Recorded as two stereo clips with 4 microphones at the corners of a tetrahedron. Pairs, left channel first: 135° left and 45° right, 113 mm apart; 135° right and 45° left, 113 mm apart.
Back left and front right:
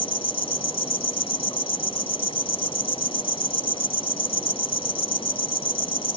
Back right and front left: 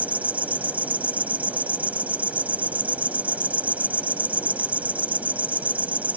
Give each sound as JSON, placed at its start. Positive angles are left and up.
{"t": 0.0, "sound": "an insect", "azimuth_deg": 120}